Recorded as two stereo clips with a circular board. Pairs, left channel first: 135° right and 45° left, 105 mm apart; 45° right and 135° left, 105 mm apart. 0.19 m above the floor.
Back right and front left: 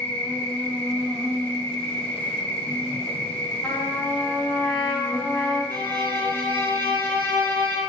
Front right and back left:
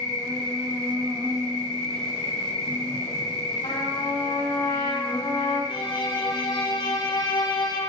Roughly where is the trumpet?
Right.